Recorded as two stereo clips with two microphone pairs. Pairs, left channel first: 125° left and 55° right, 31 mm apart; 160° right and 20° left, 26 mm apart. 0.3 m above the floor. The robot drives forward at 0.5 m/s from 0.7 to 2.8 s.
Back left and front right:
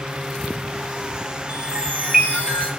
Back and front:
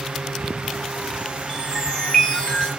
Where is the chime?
90° right, 5 m; by 2.7 s 100° right, 5 m.